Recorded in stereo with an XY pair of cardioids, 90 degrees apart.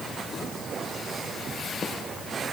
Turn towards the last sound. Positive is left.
No sound to turn to.